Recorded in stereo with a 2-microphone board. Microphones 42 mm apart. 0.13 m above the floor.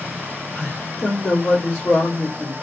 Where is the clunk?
No clunk in this recording.